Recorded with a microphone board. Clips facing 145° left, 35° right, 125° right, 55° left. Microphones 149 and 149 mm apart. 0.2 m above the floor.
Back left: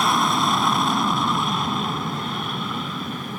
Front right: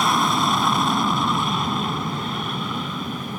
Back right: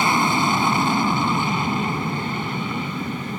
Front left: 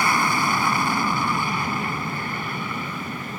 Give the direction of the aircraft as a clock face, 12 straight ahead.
4 o'clock.